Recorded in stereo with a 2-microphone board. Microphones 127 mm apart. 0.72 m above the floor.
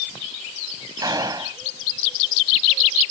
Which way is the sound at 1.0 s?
30° right (ahead or behind).